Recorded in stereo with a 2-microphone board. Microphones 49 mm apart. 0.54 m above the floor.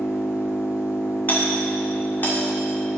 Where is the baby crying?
I don't hear a baby crying.